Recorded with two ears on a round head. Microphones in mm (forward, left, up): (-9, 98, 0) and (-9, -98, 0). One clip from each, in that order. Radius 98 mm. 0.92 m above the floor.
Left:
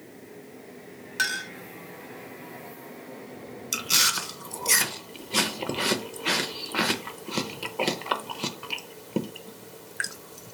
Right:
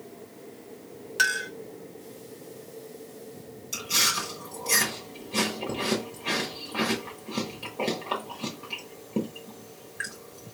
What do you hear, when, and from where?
1.2 s a clink: centre (ahead or behind), 1.1 m
3.7 s chewing: 45° left (ahead or behind), 0.8 m